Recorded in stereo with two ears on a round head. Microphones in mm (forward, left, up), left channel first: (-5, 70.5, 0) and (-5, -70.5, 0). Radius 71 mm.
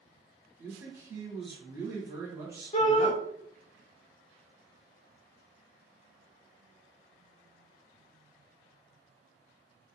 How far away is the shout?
About 0.6 m.